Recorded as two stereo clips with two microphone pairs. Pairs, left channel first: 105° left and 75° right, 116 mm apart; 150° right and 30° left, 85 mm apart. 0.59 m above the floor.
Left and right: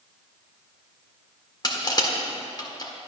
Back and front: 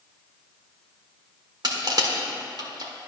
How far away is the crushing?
About 1.6 m.